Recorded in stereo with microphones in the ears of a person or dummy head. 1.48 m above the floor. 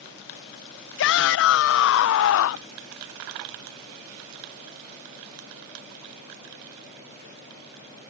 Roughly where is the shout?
Left.